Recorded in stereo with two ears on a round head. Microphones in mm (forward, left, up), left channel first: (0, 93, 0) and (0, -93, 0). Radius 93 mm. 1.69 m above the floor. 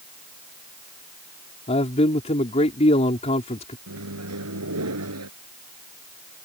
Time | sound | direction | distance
1.7 | a man speaking | 30° left (ahead or behind) | ?
3.9 | a microwave | 85° right | ?